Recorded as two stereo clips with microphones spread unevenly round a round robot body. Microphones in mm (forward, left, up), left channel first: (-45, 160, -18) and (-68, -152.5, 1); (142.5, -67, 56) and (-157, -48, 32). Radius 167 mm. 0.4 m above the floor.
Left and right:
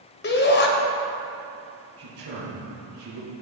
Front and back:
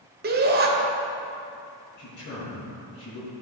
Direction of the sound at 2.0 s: 55° right.